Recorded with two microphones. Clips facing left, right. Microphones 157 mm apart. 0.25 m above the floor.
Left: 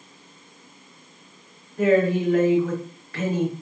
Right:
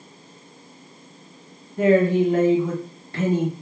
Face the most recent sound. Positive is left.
turn(degrees=-30)  # may be behind; listen again after turning